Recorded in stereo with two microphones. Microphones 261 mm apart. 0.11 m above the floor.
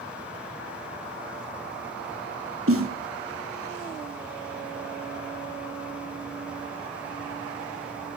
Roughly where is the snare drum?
Right.